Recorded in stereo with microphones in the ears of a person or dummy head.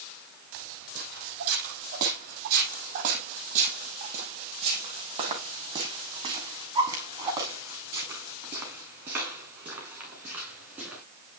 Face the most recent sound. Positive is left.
turn(degrees=-15)  # may be behind; listen again after turning